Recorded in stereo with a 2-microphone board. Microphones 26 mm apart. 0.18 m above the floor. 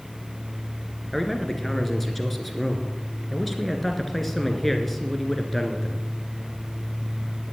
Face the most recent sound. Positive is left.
turn(degrees=10)  # may be behind; listen again after turning